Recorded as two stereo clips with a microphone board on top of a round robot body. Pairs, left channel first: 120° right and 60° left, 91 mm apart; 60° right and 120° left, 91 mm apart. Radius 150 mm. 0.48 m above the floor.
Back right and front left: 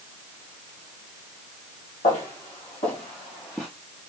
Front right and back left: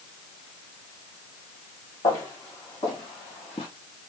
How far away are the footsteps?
About 2.5 m.